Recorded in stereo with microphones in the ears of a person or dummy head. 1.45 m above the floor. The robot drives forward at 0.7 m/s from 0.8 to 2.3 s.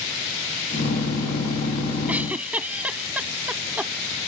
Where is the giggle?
10° right (ahead or behind).